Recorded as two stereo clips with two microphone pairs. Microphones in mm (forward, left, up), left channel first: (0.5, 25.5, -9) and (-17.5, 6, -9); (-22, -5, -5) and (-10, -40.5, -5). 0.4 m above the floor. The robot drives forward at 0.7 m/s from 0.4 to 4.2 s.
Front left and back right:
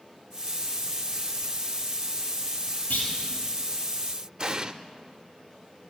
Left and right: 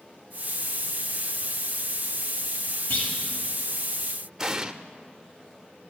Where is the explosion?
135° right, 0.5 m.